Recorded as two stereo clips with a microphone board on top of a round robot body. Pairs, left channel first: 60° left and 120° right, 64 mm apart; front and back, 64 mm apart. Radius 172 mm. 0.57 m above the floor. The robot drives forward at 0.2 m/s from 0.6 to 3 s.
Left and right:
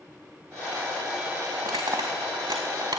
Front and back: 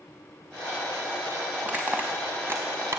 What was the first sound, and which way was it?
Crushing, 115° right.